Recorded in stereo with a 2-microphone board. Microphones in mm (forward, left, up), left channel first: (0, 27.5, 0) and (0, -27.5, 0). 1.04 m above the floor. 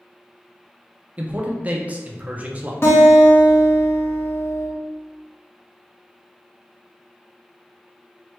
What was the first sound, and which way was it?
A man speaking, 25° right (ahead or behind).